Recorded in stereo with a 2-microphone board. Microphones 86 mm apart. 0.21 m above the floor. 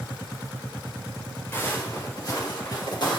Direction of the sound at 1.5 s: 25° left (ahead or behind).